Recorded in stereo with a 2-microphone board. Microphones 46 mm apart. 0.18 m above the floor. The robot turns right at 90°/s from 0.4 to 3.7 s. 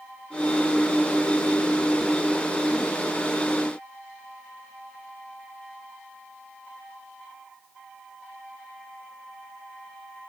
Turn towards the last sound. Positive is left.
No sound to turn to.